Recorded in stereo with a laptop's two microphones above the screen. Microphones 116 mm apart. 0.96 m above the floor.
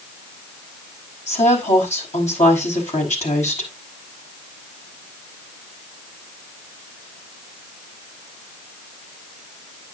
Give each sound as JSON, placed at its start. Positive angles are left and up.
{"t": 1.3, "sound": "a woman speaking", "side_deg": 85, "distance_m": 5.0}